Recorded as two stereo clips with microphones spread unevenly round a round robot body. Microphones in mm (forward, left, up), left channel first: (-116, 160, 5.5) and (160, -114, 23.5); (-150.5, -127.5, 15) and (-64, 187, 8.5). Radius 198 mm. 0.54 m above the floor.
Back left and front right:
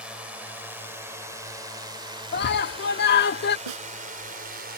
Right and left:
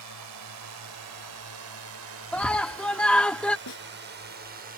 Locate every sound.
0.0 s a drone: 40° left; by 4.8 s 15° left
2.3 s a scream: 170° left
3.7 s a snare drum: 55° right